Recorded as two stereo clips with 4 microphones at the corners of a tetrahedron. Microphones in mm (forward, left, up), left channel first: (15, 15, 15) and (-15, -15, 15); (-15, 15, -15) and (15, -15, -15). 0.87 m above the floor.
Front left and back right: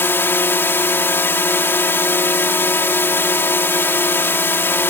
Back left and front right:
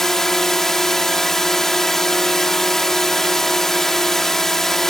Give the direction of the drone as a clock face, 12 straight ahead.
10 o'clock.